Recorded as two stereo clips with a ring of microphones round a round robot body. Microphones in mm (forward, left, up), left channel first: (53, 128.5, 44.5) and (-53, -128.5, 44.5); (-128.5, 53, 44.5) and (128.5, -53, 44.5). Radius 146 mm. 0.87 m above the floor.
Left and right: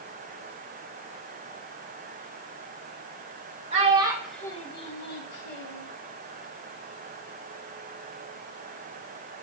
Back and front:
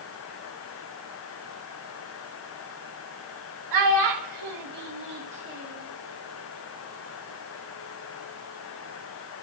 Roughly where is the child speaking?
Ahead right.